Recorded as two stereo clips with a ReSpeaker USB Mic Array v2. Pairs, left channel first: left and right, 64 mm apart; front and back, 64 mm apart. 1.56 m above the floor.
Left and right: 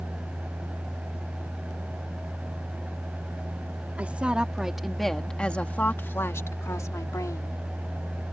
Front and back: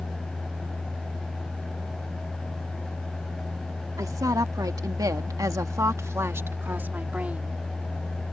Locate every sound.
4.0 s a woman speaking: 160° right; by 7.6 s 110° left